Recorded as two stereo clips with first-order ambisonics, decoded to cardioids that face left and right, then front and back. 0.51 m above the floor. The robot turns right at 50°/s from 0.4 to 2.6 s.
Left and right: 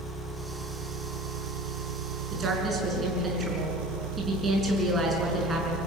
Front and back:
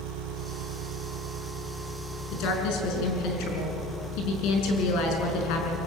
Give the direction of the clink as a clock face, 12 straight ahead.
No clink in this recording.